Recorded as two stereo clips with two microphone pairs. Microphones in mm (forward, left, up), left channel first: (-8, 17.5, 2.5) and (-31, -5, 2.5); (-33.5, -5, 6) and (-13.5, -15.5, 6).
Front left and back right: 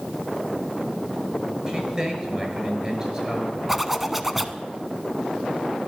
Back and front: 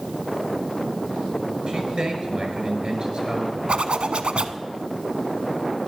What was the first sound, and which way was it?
A man speaking, 75° right.